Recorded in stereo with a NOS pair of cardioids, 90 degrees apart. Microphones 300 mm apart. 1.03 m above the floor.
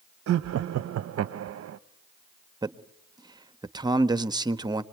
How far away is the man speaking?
About 1.2 m.